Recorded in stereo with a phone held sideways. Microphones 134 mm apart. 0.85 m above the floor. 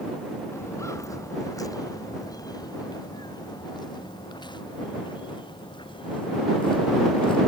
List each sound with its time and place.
0.5 s footsteps: 20° left (ahead or behind); by 7.4 s 40° left (ahead or behind)